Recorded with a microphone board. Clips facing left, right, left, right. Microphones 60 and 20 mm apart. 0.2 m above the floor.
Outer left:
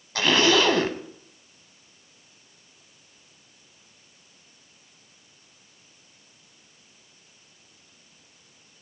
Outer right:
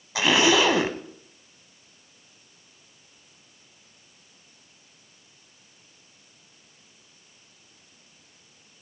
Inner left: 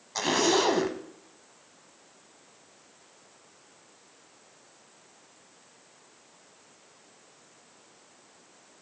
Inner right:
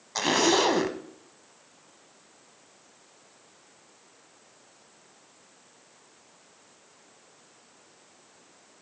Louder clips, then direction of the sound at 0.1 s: Even, inner right 2 dB; 10° right (ahead or behind).